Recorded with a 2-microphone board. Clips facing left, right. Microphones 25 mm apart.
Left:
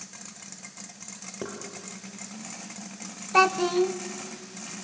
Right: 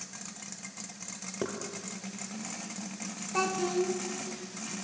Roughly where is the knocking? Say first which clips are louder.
Right 2 dB; centre.